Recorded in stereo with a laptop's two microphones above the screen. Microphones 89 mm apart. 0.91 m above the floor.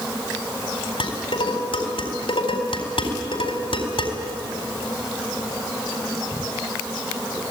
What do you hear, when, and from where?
1.0 s dishes clattering: 80° left, 4 m